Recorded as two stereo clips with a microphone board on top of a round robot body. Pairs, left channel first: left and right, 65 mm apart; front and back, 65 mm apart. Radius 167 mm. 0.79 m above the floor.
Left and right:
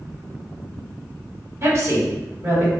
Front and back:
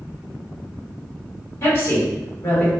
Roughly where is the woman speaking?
Ahead right.